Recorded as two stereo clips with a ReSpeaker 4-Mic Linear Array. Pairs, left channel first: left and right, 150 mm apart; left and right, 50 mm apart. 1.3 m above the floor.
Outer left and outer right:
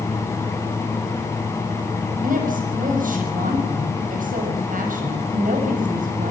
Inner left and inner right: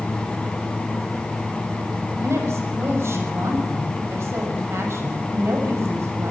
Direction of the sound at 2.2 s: 65° right (ahead or behind).